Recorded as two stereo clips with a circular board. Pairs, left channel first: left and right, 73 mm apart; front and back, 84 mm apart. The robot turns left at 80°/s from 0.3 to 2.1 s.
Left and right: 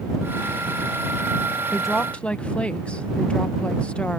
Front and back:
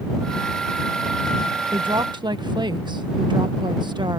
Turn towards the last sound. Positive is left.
turn(degrees=160)